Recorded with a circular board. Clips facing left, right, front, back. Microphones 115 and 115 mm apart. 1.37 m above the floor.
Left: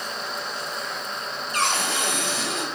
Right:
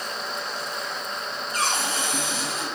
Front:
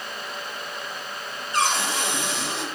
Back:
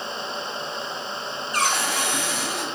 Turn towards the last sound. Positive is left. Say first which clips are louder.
# left 2 dB, front 1 dB
turn(degrees=65)